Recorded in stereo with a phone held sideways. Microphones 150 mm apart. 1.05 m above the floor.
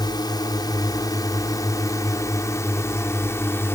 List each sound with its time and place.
0.0 s a drone: 25° left (ahead or behind); by 3.8 s 15° left (ahead or behind)